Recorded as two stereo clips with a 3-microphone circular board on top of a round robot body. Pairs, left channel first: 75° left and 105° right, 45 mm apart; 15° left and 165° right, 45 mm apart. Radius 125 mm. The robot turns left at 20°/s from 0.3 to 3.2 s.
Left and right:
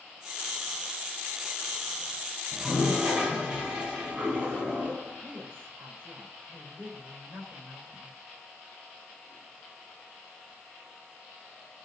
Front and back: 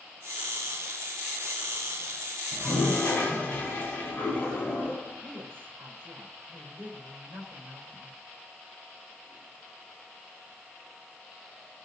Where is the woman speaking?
135° right, 3.5 m.